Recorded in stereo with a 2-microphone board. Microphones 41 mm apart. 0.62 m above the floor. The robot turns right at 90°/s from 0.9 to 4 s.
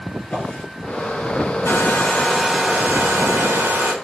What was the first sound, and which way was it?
A drawer, 35° left (ahead or behind).